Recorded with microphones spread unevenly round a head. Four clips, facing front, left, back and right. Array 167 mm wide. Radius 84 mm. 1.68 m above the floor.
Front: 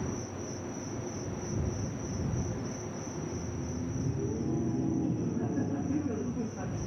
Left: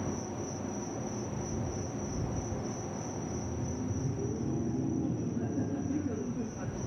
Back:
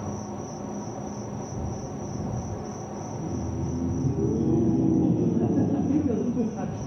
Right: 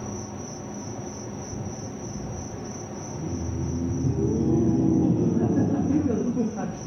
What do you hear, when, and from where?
0.0 s an insect: 170° right
3.1 s laughter: 130° right